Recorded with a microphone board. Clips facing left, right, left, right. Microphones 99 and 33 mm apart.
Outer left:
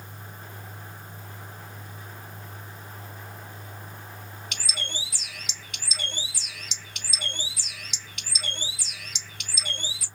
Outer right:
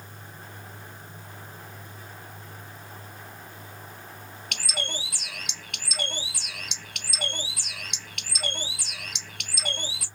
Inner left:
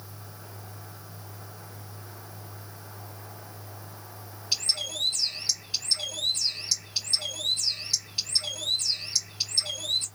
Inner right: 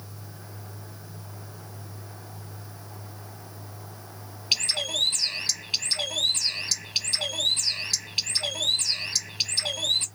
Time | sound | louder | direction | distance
4.5 | a bird | outer right 4 dB, inner right 4 dB | 55° right (ahead or behind) | 1.0 m